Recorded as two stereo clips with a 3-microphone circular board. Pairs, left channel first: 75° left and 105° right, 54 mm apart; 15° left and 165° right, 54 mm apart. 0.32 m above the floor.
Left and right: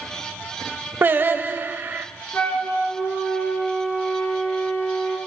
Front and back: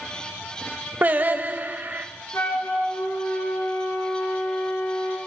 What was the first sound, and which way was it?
Singing, 130° right.